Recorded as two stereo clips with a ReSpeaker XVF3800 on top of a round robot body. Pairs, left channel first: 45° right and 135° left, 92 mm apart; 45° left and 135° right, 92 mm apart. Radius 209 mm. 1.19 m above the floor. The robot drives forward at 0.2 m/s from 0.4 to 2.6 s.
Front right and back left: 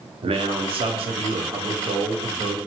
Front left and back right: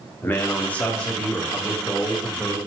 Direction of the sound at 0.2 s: 115° left.